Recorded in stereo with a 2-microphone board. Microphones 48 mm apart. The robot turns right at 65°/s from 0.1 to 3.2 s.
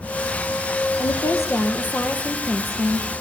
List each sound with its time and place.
1.0 s a woman speaking: 75° left, 3.5 m; by 3.1 s 150° right, 3.5 m